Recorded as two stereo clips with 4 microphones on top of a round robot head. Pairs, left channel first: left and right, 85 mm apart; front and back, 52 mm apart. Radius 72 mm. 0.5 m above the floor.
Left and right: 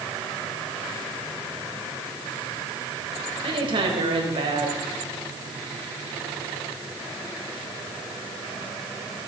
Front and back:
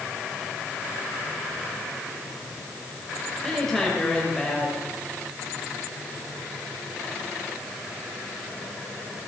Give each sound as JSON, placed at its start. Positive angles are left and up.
{"t": 3.4, "sound": "a woman speaking", "azimuth_deg": -85, "distance_m": 3.0}